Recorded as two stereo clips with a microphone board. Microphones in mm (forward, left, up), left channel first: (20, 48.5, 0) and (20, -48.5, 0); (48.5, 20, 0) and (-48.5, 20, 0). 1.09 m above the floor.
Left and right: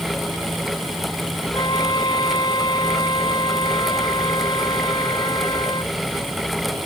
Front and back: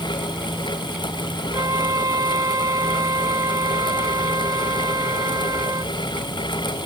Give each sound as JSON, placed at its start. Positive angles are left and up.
{"t": 1.5, "sound": "a flute", "azimuth_deg": 130}